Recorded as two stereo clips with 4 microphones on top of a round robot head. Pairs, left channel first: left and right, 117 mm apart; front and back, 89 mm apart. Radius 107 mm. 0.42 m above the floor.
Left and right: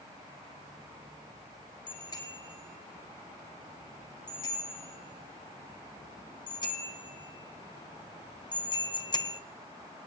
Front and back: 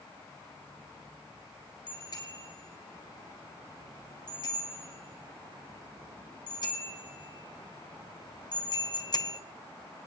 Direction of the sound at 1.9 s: 40° left.